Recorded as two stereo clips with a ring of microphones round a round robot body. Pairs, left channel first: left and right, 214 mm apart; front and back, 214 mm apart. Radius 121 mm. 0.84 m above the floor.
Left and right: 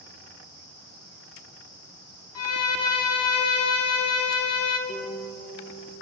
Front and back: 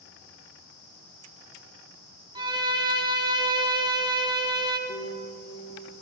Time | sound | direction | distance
2.4 | a violin | 110° left | 1.4 m
4.9 | a piano | 35° left | 3 m